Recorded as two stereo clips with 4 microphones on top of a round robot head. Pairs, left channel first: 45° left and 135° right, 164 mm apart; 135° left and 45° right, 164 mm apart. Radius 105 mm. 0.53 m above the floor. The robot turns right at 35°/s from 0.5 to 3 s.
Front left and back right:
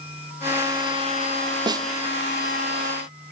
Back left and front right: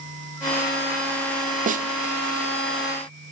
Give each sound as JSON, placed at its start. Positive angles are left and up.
{"t": 1.7, "sound": "a snare drum", "azimuth_deg": -75, "distance_m": 0.7}